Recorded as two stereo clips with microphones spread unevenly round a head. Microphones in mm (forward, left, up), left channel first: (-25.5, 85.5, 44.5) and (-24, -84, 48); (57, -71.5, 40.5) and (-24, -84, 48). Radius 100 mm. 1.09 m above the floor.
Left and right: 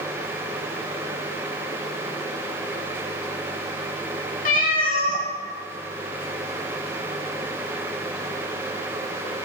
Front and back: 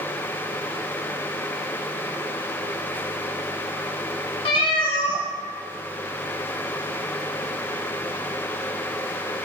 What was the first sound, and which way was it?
A cat meowing, 50° left.